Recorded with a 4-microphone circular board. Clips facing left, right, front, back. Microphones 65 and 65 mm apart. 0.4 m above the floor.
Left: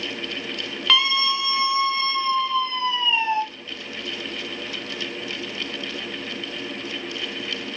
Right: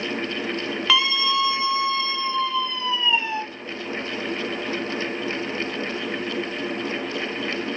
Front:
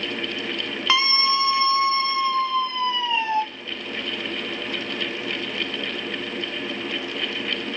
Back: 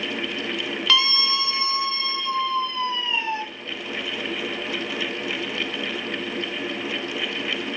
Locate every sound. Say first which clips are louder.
0.9 s a scream: even, front 3 dB; 15° right, 0.8 m; by 3.4 s 25° left, 1.7 m